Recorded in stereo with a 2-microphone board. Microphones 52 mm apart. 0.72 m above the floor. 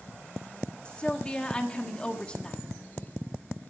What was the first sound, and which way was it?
A woman speaking, 20° left (ahead or behind).